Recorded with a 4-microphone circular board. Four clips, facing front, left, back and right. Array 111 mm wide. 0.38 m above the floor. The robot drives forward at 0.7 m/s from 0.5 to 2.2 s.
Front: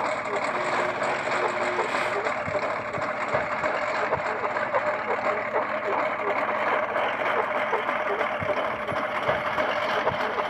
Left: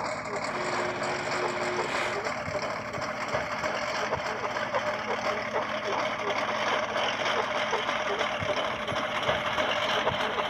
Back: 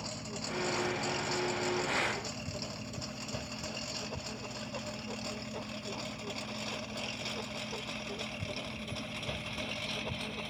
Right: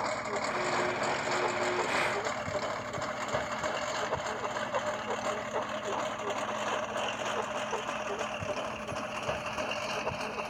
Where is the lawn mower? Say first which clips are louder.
Left 1 dB, front 16 dB; straight ahead; by 10.5 s 20° left.